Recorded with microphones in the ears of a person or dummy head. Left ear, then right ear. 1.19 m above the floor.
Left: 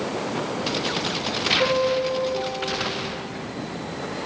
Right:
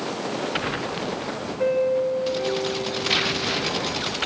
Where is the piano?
70° left (ahead or behind), 2.5 m.